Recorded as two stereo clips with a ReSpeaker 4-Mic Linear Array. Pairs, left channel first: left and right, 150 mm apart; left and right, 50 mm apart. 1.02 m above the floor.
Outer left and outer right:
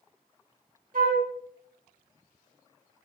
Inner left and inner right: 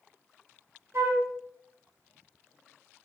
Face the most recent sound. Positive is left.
turn(degrees=-60)  # may be behind; listen again after turning